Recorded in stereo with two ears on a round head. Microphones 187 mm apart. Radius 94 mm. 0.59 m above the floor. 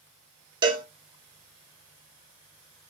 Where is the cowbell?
20° right (ahead or behind), 0.7 m.